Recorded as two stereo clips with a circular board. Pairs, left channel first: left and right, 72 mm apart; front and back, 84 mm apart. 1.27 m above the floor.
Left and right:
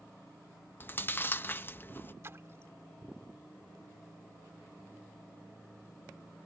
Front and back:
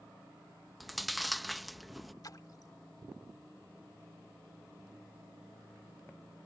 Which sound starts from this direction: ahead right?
A splash, at 2.2 s.